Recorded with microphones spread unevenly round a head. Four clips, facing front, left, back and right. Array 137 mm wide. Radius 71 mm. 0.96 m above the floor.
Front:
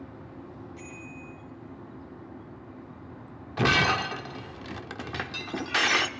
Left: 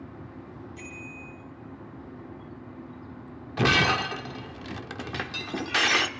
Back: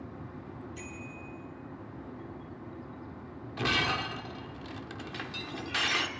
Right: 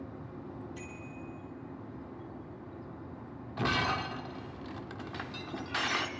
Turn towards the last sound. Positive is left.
turn(degrees=55)